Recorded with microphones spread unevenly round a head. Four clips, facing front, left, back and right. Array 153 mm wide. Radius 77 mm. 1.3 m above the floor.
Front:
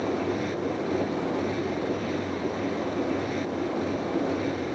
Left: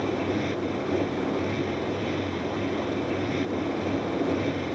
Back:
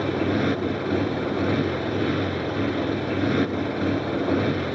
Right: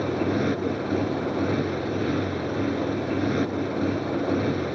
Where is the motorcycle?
145° right.